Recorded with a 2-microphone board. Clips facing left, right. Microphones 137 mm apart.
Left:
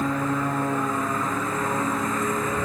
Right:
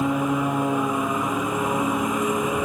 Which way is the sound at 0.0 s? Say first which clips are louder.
Right 3 dB; 15° right (ahead or behind).